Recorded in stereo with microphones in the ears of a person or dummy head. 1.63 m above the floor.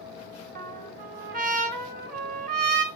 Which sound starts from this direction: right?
A trumpet, at 0.6 s.